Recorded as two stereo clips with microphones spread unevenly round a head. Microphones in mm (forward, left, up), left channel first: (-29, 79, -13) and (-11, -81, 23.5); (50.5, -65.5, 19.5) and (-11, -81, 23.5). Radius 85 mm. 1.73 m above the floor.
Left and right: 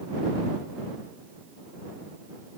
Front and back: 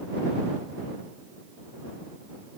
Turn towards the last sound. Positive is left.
No sound to turn to.